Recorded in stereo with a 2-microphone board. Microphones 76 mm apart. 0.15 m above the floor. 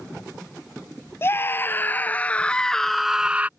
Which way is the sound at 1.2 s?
30° left (ahead or behind).